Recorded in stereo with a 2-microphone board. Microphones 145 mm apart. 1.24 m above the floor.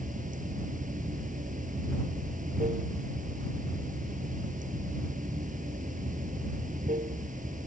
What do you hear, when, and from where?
0.0 s running water: 65° right (ahead or behind)